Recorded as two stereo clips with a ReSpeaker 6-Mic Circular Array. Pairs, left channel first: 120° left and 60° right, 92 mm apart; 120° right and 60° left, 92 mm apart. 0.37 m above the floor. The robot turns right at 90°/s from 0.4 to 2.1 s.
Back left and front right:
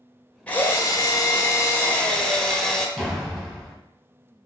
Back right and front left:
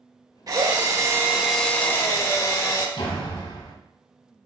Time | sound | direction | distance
0.5 | a drill | 50° left | 0.9 m
3.0 | a door slam | 150° right | 1.5 m